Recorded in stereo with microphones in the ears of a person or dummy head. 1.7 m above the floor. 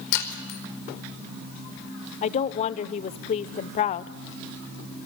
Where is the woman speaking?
40° left (ahead or behind), 0.7 m.